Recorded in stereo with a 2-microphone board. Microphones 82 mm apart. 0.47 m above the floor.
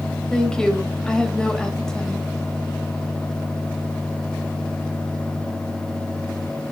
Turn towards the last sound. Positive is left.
turn(degrees=10)  # may be behind; listen again after turning